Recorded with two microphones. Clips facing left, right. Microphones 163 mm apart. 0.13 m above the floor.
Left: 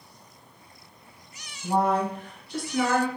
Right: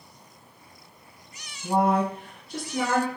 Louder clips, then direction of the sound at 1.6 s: Right 1 dB; 10° right (ahead or behind).